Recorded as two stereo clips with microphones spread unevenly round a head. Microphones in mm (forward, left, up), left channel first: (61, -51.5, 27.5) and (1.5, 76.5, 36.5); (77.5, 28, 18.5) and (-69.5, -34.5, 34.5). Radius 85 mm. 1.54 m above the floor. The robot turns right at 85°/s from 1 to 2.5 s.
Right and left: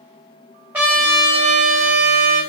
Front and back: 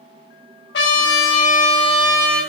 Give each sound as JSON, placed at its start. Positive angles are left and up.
{"t": 0.7, "sound": "a trumpet", "azimuth_deg": 35, "distance_m": 2.0}